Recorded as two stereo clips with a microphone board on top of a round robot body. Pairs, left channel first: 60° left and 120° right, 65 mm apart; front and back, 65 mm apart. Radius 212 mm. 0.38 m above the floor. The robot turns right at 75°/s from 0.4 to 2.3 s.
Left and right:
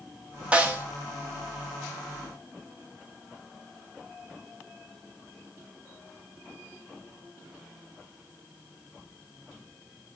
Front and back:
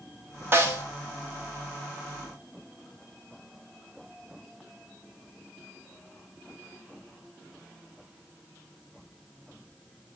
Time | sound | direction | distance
0.5 | a snare drum | straight behind | 0.9 m